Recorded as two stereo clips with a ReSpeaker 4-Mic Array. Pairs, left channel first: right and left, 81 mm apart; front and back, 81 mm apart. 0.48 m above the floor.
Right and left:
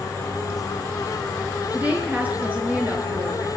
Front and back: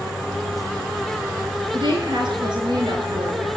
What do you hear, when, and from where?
1.7 s a woman speaking: 160° left, 6 m